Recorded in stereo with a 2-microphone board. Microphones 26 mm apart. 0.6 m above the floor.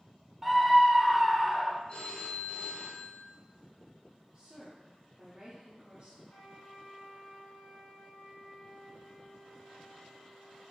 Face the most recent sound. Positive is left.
turn(degrees=70)  # may be behind; listen again after turning